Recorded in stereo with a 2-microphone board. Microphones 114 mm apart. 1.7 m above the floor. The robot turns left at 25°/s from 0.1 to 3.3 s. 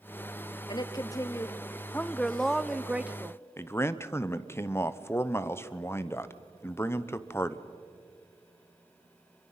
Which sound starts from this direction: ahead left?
A woman speaking, at 0.7 s.